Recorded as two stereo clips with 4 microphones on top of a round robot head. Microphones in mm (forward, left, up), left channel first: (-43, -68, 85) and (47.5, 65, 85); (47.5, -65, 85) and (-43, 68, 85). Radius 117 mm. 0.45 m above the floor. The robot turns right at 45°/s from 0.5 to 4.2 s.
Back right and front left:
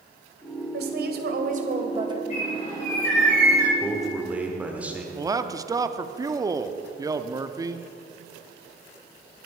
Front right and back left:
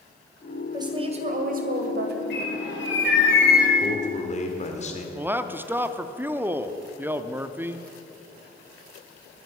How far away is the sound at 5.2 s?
About 0.7 m.